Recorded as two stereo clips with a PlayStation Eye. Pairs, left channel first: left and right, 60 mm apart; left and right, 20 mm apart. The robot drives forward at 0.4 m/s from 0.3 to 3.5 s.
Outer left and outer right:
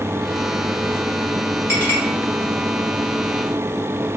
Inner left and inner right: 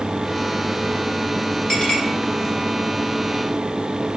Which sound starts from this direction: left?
A clink, at 1.7 s.